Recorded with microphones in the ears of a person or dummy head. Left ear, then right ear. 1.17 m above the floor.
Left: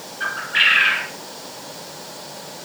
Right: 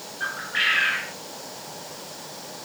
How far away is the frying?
I don't hear frying.